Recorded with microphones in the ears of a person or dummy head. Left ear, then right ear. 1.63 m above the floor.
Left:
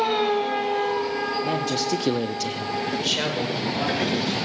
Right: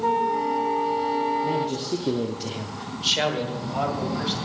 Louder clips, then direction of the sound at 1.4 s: Left 1 dB; 50° left (ahead or behind).